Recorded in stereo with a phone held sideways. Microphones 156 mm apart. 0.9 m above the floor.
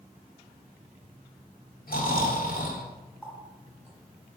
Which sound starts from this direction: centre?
A running tap, at 3.2 s.